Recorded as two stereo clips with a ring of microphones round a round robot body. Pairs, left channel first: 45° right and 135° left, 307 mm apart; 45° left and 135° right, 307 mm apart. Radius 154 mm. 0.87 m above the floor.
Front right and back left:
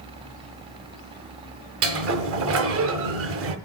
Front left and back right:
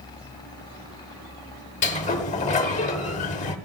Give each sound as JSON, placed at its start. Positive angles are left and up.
{"t": 1.8, "sound": "a sliding door", "azimuth_deg": 105, "distance_m": 0.7}